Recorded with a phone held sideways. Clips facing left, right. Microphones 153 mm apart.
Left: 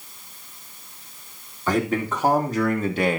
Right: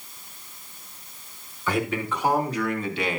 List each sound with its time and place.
1.7 s a man speaking: 40° left (ahead or behind), 3.5 m; by 3.2 s 45° left (ahead or behind), 2.5 m